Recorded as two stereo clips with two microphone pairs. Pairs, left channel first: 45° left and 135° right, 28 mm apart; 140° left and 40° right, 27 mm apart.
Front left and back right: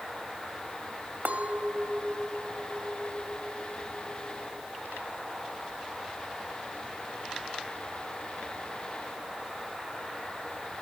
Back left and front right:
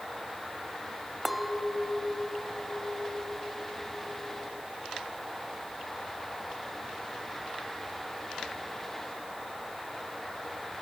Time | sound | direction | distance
1.2 | a clink | 125° right | 2 m